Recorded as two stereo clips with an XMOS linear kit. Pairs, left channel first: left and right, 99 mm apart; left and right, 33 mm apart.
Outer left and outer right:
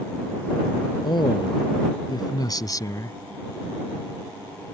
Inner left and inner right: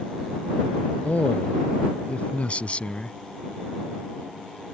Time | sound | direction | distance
1.0 | a man speaking | 50° left (ahead or behind) | ?